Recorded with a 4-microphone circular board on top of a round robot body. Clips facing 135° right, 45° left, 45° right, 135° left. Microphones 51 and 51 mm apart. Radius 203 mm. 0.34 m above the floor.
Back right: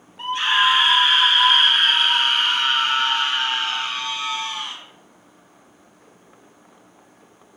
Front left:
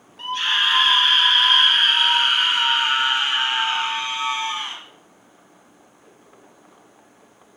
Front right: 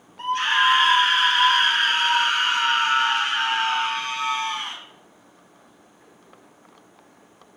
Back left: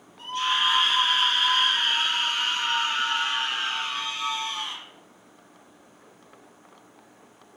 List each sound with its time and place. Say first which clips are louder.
0.2 s a scream: back right 3 dB, front right 5 dB; 65° right, 4.5 m; by 4.8 s 15° right, 4 m